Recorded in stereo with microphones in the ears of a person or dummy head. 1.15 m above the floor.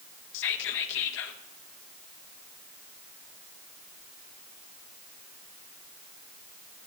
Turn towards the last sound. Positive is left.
turn(degrees=60)  # may be behind; listen again after turning